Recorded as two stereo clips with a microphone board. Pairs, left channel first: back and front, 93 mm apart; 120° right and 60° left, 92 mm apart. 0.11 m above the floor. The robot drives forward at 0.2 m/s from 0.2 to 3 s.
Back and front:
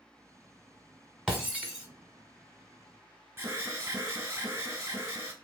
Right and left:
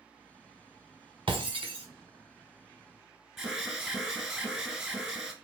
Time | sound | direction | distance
1.3 | breaking glass | 80° left | 1.6 m
3.4 | an alarm | 20° right | 0.8 m